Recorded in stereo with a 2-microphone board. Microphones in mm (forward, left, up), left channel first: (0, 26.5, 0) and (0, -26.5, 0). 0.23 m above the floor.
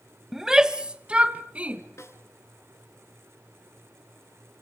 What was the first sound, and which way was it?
A shout, 5° right (ahead or behind).